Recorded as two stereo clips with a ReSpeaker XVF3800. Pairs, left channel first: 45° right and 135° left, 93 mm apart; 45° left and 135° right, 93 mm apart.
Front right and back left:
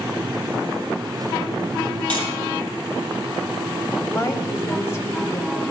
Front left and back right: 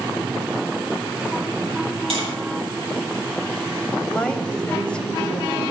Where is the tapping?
120° right, 5.5 m.